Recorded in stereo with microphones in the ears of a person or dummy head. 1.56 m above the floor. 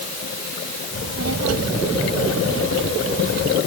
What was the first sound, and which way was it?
A child speaking, 75° right (ahead or behind).